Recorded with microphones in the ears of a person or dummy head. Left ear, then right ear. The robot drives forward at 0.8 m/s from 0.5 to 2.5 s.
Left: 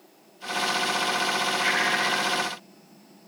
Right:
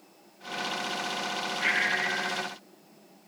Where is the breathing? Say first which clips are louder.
Even; 10° right (ahead or behind); by 2.5 s 5° right (ahead or behind).